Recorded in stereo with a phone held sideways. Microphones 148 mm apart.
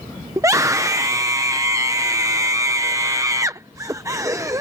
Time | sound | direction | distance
0.4 | a scream | 20° right (ahead or behind) | ?